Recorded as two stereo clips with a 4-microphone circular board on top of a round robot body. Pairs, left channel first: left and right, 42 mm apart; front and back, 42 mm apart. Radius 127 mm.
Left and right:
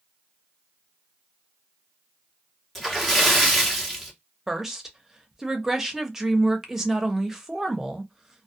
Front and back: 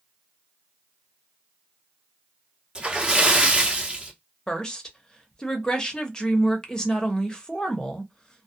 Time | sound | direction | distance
2.8 | a splash | 165° left | 1.4 m
4.5 | a woman speaking | 30° right | 1.0 m